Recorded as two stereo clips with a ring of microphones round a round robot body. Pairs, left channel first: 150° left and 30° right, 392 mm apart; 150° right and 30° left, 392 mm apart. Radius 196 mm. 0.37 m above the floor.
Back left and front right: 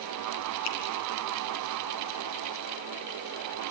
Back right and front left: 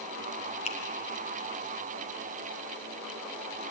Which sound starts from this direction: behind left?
A finger snap, at 0.7 s.